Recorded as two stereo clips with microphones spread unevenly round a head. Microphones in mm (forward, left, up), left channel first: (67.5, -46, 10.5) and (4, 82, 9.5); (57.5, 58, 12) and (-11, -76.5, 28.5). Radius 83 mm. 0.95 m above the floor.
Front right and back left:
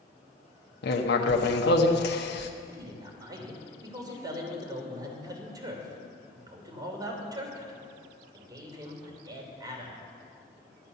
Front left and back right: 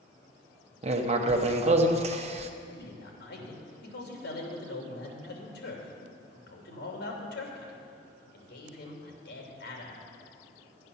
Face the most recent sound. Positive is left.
turn(degrees=50)